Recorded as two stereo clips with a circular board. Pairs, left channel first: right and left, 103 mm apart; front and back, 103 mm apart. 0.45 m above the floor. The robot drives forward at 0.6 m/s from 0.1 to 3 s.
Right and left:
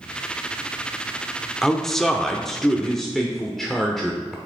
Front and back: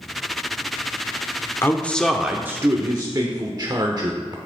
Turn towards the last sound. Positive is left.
turn(degrees=-175)